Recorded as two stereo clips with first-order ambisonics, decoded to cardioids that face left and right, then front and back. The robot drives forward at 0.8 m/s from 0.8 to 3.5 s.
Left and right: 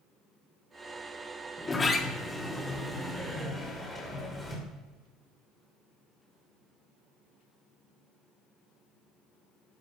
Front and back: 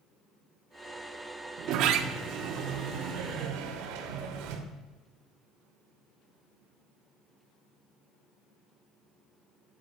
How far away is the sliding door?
About 1.3 m.